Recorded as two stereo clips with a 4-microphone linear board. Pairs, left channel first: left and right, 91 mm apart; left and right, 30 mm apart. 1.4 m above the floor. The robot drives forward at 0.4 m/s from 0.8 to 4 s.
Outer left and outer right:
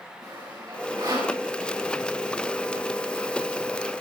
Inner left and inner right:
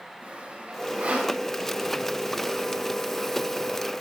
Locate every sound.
0.2 s sawing: 55° right (ahead or behind), 6.5 m